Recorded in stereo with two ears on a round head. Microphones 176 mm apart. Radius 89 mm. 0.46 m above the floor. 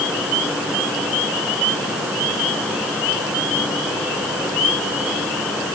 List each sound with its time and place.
Only background noise.